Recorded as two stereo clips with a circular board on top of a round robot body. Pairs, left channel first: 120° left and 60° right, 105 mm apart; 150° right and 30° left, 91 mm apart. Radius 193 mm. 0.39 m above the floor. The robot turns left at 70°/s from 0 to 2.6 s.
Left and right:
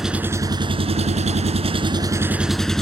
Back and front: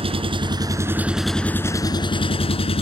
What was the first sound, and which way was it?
An engine running, 30° left.